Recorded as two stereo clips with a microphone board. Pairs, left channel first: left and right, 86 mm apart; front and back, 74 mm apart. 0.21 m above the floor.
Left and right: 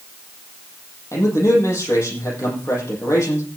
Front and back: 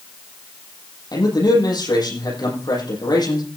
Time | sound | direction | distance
1.1 | a man speaking | 35° left | 8.5 m